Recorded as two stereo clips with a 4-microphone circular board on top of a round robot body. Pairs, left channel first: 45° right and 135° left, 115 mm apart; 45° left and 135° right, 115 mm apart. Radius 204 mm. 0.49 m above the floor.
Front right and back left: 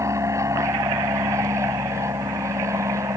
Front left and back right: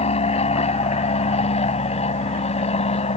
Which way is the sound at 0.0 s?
70° left.